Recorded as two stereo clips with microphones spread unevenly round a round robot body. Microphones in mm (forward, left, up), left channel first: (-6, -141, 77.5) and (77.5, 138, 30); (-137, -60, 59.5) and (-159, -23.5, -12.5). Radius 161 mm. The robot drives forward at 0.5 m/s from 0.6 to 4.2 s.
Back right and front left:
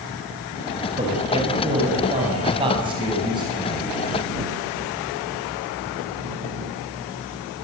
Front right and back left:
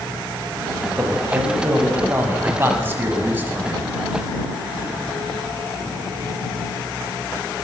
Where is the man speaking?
145° left, 6 m; by 3.9 s 150° left, 7 m.